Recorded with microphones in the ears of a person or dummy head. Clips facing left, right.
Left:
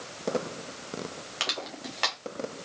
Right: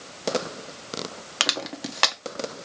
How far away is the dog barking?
No dog barking in this recording.